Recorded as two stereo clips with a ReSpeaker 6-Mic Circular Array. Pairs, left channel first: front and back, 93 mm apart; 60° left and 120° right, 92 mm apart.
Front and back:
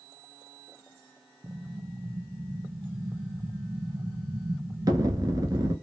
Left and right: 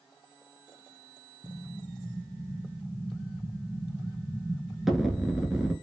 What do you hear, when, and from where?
1.4 s an explosion: 155° left, 0.7 m